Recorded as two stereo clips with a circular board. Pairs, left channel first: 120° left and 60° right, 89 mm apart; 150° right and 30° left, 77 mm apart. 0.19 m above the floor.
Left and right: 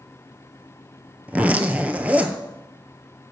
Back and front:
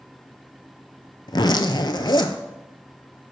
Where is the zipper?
135° right, 0.6 m.